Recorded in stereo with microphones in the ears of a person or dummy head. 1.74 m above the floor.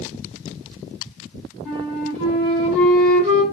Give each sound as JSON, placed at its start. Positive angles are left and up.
{"t": 1.6, "sound": "a flute", "side_deg": 5, "distance_m": 3.5}